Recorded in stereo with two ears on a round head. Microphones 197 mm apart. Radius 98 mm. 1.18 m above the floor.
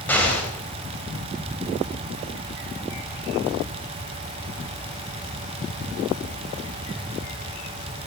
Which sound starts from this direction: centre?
An explosion, at 0.1 s.